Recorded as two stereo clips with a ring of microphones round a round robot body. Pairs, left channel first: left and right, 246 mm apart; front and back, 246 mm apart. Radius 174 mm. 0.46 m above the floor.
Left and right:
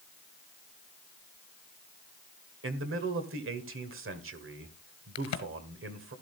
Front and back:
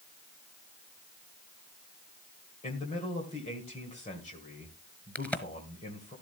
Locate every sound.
2.6 s a man speaking: 65° right, 1.8 m
5.2 s a crack: 85° left, 1.3 m